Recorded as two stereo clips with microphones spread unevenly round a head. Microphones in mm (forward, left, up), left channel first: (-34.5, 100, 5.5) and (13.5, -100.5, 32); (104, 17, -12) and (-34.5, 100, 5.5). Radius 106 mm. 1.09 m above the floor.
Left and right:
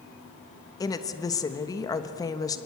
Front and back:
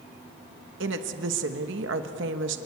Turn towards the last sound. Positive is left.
turn(degrees=175)